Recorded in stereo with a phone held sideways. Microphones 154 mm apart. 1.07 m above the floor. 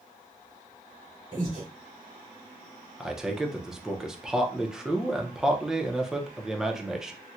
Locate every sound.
1.3 s breathing: 50° right (ahead or behind), 1.7 m
3.0 s a man speaking: 5° right (ahead or behind), 0.6 m